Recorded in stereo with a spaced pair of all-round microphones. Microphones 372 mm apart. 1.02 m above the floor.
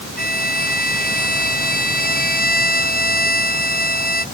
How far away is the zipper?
No zipper in this recording.